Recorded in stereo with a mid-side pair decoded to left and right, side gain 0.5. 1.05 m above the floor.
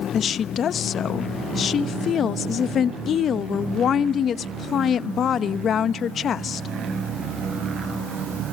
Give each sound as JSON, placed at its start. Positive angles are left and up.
{"t": 0.1, "sound": "a woman speaking", "azimuth_deg": 50, "distance_m": 0.9}